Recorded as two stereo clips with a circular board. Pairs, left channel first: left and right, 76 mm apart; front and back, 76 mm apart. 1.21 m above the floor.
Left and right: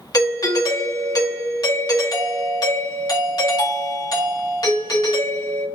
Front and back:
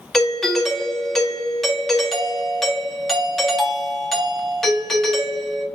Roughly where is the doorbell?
Left.